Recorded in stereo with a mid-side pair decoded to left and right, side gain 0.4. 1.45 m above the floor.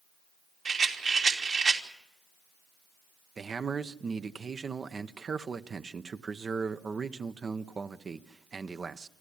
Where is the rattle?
50° right, 3 m.